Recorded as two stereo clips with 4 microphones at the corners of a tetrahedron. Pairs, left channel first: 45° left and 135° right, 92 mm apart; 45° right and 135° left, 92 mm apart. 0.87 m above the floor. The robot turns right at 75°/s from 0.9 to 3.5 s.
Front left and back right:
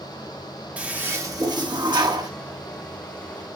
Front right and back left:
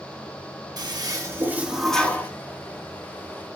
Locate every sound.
0.8 s a toilet flushing: 155° left, 1.2 m; by 2.3 s 100° right, 1.2 m